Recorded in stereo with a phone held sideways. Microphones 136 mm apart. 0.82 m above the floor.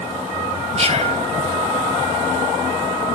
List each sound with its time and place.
0.8 s whispering: 50° right (ahead or behind), 4 m